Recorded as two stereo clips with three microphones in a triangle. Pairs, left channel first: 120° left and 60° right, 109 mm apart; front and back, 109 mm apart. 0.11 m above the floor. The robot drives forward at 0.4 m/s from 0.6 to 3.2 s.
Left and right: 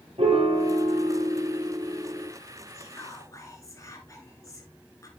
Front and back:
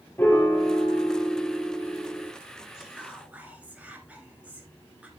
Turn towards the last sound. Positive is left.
turn(degrees=115)